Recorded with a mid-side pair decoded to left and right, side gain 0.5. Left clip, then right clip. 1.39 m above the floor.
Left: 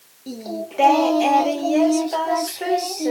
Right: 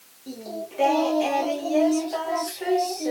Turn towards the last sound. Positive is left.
turn(degrees=40)